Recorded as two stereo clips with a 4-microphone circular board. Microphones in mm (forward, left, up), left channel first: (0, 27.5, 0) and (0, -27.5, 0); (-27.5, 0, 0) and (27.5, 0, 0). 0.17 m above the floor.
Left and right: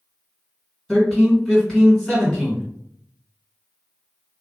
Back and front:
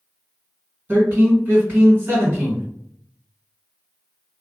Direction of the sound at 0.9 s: 20° left.